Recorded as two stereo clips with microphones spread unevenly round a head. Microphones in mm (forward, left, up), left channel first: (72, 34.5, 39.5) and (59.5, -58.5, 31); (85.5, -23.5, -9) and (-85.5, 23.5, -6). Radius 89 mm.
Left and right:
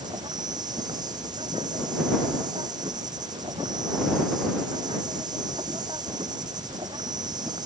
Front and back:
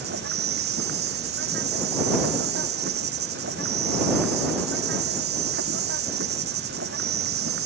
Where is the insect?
160° right.